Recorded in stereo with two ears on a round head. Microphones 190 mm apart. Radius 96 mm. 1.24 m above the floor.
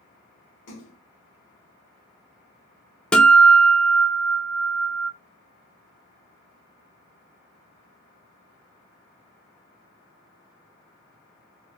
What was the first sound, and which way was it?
A splash, 70° left (ahead or behind).